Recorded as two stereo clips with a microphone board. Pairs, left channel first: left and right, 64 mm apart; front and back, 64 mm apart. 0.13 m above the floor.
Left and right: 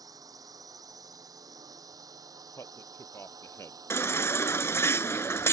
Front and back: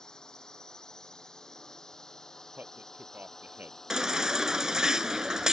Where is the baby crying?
105° left.